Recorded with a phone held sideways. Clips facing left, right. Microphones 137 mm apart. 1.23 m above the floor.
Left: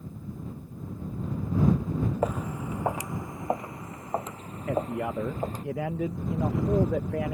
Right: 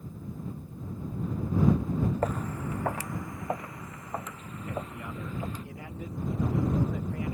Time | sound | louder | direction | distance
2.2 | footsteps | left 2 dB | 10° left (ahead or behind) | ?
4.7 | a man speaking | left 10 dB | 80° left | ?